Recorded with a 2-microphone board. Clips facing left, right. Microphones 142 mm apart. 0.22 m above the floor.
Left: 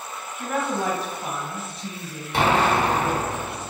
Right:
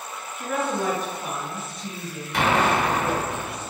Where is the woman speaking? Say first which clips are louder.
Even; 35° left (ahead or behind), 1.2 m.